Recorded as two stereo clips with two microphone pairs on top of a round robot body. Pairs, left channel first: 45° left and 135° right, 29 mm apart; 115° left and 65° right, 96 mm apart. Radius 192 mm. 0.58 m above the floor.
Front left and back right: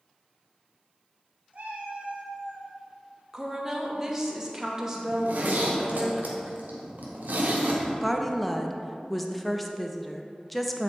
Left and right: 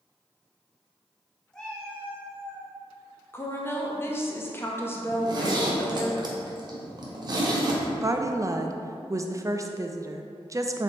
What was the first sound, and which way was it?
A cat meowing, 165° right.